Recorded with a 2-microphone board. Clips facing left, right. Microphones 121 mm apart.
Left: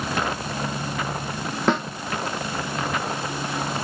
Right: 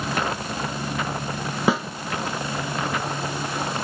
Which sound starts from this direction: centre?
A snare drum, at 1.7 s.